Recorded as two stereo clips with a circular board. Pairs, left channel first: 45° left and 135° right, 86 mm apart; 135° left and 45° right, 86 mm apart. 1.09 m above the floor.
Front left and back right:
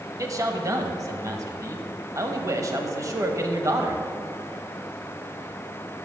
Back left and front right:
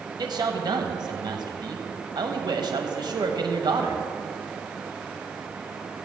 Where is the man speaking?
85° right, 1.0 m.